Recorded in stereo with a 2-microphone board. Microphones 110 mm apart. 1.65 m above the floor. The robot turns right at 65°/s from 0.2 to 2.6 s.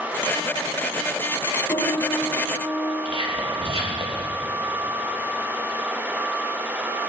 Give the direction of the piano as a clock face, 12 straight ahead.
7 o'clock.